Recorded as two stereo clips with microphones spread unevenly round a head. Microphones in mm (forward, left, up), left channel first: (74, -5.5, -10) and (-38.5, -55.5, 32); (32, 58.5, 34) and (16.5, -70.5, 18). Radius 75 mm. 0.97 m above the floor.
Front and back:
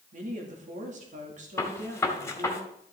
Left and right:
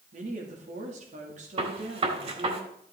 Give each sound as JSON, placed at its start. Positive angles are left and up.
{"t": 0.1, "sound": "a woman speaking", "azimuth_deg": -125, "distance_m": 2.0}
{"t": 1.6, "sound": "a gunshot", "azimuth_deg": -50, "distance_m": 2.0}